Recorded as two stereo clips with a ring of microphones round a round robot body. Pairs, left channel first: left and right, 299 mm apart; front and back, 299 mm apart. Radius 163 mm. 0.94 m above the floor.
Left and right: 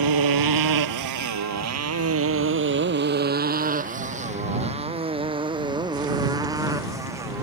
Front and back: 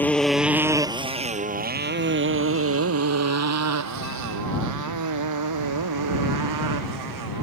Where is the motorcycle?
85° right; by 7.4 s 170° right.